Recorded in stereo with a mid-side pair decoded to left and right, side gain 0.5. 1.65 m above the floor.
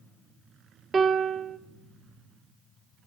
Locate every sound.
0.9 s a piano: 35° right, 1.0 m